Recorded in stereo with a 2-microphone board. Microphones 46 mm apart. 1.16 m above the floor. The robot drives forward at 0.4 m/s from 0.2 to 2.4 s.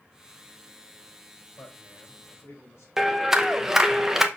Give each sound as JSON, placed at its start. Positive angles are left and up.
{"t": 1.6, "sound": "a man speaking", "side_deg": 80, "distance_m": 4.0}
{"t": 3.0, "sound": "a clap", "side_deg": -10, "distance_m": 0.8}